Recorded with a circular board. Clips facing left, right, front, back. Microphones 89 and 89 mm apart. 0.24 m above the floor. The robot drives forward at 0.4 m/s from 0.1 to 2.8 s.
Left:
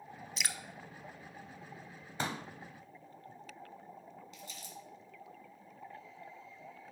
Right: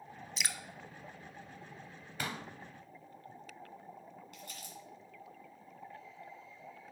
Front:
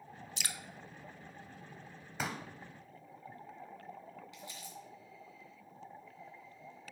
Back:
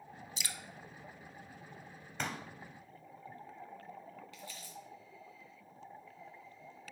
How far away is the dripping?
About 0.5 m.